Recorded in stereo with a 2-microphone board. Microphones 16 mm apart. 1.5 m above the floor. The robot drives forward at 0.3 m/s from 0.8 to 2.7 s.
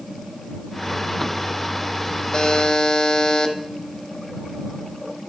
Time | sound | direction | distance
2.3 | a buzzer | 35° left (ahead or behind) | 0.9 m